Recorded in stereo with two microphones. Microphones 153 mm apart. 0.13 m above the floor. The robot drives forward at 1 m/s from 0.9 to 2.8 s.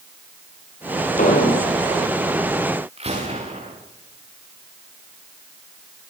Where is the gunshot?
40° right (ahead or behind), 7 m.